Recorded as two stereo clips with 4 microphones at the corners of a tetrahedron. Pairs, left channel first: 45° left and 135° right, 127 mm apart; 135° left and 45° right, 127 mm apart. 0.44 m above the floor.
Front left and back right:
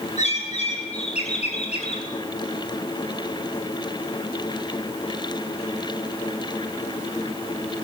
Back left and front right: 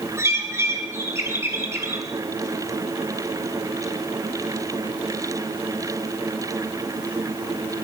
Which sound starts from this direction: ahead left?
A bird, at 0.2 s.